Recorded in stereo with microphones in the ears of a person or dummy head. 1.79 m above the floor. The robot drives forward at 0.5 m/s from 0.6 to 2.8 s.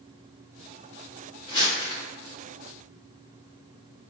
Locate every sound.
1.5 s crumpling: 30° left (ahead or behind), 1.3 m; by 2.0 s 25° left (ahead or behind), 1.5 m